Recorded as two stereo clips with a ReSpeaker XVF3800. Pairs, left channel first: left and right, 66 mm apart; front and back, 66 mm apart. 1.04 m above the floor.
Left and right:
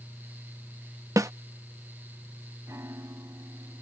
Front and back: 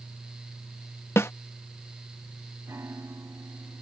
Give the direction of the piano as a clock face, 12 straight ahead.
5 o'clock.